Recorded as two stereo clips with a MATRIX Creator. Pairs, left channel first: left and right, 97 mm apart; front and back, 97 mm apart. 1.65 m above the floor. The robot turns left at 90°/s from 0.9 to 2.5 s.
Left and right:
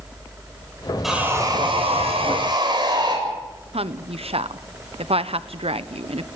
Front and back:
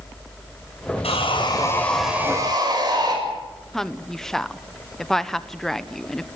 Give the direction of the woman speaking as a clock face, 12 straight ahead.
3 o'clock.